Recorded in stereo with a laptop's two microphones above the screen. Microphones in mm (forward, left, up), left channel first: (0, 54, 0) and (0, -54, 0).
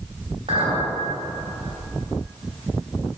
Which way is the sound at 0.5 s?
70° right (ahead or behind).